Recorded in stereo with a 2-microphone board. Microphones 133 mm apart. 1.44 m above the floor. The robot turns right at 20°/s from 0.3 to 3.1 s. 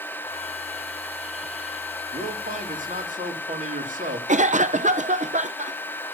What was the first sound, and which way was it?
A man speaking, 60° right (ahead or behind).